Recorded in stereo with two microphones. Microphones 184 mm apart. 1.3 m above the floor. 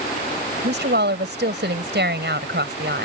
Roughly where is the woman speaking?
Right.